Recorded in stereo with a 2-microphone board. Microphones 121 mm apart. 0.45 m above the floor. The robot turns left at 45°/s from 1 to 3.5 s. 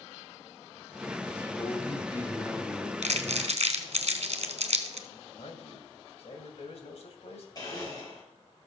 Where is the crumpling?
90° right, 1.4 m; by 5.0 s 70° right (ahead or behind), 1.4 m.